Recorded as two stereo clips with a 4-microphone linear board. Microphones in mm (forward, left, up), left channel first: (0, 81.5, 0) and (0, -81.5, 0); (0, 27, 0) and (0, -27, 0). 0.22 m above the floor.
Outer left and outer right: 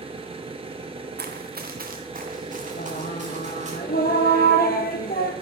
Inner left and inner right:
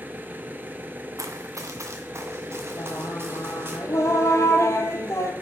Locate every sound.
0.0 s an engine running: 35° right (ahead or behind), 1.1 m
1.2 s running footsteps: 80° right, 1.0 m; by 3.8 s 45° right (ahead or behind), 3 m
2.8 s singing: 70° left (ahead or behind), 1.2 m